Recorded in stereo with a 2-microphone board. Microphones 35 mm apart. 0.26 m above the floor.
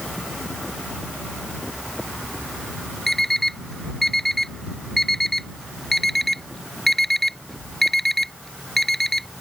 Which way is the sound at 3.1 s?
10° left (ahead or behind).